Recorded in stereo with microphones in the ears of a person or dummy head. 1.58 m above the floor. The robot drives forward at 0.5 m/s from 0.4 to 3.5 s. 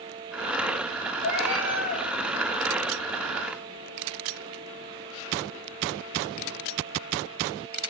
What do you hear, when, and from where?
1.2 s a cat meowing: 60° left (ahead or behind), 4.5 m; by 2.1 s 55° left (ahead or behind), 4.5 m